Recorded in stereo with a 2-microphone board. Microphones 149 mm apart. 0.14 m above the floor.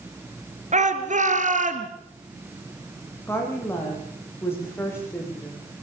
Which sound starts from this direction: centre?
A woman speaking, at 3.3 s.